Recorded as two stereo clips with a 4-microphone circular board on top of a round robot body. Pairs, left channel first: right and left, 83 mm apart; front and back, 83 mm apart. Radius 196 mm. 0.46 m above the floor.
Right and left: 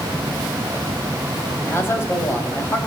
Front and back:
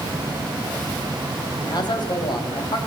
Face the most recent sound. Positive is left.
turn(degrees=-30)